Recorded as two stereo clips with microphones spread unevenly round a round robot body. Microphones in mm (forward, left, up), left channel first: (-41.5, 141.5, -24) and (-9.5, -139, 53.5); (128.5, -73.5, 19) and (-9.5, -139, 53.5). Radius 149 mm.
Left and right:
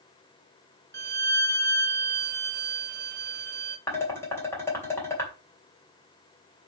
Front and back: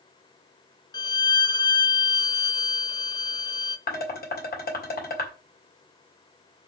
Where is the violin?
45° right, 0.8 m.